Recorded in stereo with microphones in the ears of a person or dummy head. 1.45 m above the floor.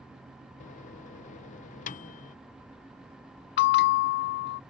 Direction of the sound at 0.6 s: 40° left (ahead or behind).